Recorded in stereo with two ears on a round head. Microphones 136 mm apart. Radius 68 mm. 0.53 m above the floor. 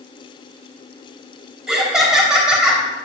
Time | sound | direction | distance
1.7 | laughter | 5° right (ahead or behind) | 3 m